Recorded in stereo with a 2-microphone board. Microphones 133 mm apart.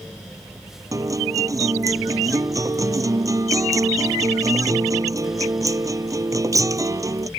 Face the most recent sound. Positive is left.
turn(degrees=-25)  # may be behind; listen again after turning